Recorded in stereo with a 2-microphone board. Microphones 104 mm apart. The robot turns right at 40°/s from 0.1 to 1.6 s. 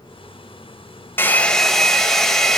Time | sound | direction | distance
1.2 | a hair dryer | 20° left (ahead or behind) | 0.9 m